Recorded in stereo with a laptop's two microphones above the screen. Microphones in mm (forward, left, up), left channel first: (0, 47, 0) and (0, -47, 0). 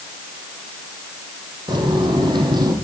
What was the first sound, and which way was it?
Footsteps, 55° right (ahead or behind).